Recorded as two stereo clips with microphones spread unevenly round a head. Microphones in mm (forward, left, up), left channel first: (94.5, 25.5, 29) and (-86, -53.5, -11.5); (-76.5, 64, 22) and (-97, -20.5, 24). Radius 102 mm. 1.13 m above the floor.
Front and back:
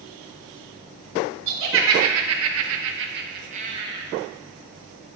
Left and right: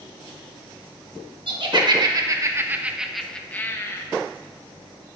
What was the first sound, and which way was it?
Laughter, 130° right.